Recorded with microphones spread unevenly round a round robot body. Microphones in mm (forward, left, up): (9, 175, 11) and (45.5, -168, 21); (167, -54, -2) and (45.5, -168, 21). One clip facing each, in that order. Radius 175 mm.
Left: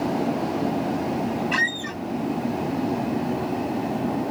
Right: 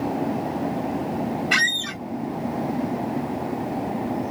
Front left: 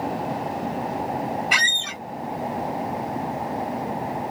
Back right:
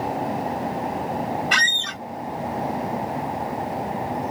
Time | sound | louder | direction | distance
1.5 | a squeak | left 2 dB, back right 1 dB | 35° right | ?